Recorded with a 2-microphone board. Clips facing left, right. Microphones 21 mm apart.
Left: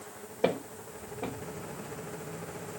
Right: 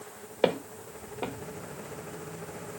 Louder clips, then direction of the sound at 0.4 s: Right 3 dB; 75° right (ahead or behind).